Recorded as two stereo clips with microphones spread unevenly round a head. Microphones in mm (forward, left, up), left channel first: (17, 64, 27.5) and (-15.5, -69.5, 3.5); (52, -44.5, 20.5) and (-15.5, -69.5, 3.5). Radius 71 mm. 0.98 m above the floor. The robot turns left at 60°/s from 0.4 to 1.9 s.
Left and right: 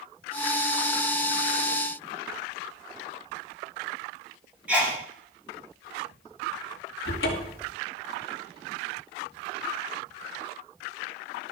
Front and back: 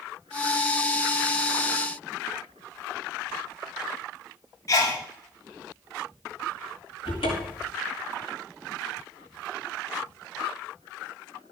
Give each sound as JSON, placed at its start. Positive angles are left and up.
{"t": 4.7, "sound": "a sneeze", "azimuth_deg": -25, "distance_m": 3.0}
{"t": 7.0, "sound": "a cupboard door", "azimuth_deg": 65, "distance_m": 3.0}